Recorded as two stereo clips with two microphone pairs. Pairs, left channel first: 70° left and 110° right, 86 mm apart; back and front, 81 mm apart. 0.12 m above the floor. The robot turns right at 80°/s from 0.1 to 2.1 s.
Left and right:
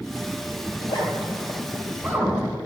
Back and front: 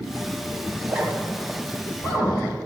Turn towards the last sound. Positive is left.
turn(degrees=150)